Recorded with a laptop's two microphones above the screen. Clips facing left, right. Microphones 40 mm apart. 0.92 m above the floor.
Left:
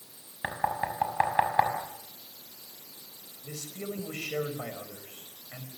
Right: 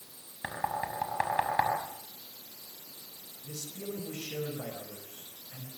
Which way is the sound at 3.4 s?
65° left (ahead or behind).